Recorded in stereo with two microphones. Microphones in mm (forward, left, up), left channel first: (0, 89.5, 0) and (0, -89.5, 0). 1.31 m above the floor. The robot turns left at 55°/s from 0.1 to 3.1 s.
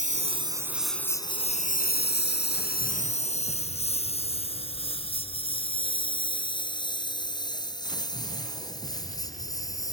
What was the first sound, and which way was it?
A lawn mower, 45° right (ahead or behind).